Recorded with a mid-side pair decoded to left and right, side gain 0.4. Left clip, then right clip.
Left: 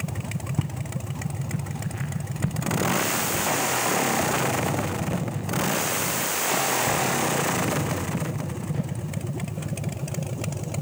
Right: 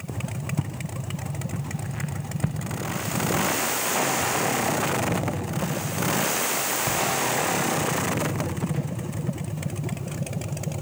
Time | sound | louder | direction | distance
0.6 | footsteps | left 1 dB | straight ahead | 4 m